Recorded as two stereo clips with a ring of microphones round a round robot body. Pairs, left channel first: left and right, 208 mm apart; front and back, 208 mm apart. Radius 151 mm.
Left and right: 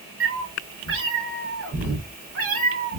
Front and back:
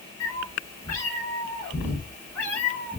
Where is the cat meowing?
75° right, 3.5 m; by 3.0 s 85° right, 2 m.